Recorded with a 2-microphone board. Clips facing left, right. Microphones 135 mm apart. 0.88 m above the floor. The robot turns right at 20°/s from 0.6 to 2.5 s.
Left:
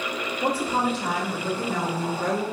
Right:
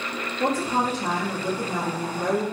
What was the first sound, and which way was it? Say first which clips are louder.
A woman speaking: right 1 dB; 45° right.